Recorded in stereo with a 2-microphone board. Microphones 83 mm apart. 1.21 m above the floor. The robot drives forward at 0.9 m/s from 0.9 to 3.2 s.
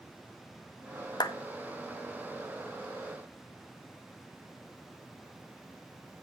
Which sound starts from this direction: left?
A clap, at 1.2 s.